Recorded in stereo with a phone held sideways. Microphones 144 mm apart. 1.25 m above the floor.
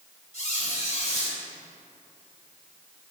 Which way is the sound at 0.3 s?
60° left (ahead or behind).